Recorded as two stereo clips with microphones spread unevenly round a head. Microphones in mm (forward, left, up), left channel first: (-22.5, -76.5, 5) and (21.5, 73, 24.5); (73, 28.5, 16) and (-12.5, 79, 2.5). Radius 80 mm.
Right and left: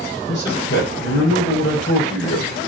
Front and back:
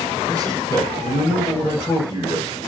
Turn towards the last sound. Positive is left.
turn(degrees=-95)